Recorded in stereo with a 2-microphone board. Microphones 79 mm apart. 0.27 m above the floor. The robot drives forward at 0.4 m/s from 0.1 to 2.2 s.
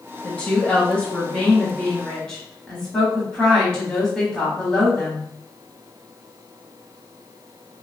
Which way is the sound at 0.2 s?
20° left (ahead or behind).